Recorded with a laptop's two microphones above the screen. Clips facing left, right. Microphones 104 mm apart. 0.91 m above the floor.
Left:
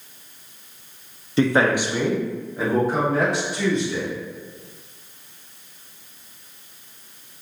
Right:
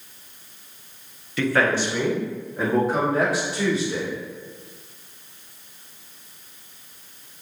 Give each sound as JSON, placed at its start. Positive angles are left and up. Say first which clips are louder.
{"t": 1.4, "sound": "a man speaking", "louder": "left 3 dB", "side_deg": 30, "distance_m": 0.7}